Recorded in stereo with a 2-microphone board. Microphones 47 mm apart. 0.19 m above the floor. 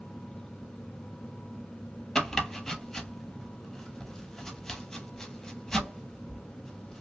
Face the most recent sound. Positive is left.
turn(degrees=10)  # may be behind; listen again after turning